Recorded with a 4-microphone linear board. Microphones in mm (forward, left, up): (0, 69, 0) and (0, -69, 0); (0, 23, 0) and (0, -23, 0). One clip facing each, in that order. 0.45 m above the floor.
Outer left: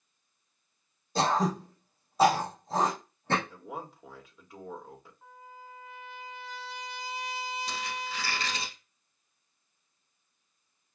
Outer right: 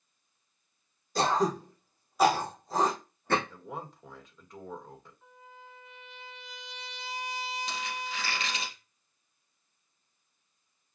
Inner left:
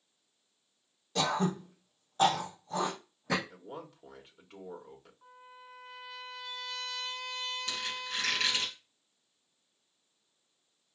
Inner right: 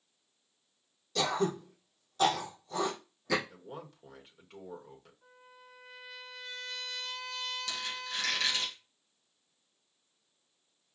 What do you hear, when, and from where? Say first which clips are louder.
1.1 s throat clearing: even, even; 30° left (ahead or behind), 3.5 m
3.5 s a man speaking: even, inner left 1 dB; 5° left (ahead or behind), 1.4 m
5.2 s a trumpet: outer left 3 dB, inner left 4 dB; 40° left (ahead or behind), 2.5 m
7.7 s a squeak: even, inner left 1 dB; 40° left (ahead or behind), 3 m